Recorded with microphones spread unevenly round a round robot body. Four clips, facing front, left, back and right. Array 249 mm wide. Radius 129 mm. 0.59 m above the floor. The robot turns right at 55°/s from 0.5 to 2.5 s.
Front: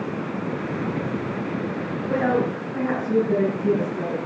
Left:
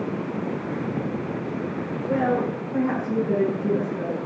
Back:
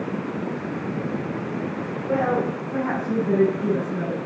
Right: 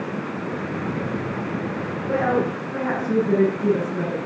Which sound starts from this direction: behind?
A woman speaking, at 2.0 s.